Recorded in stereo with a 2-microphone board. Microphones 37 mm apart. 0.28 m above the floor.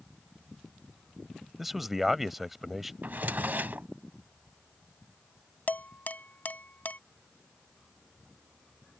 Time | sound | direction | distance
1.6 | a man speaking | 5° right (ahead or behind) | ?
3.0 | a drawer | 60° right (ahead or behind) | ?
5.7 | dishes clattering | 55° left (ahead or behind) | ?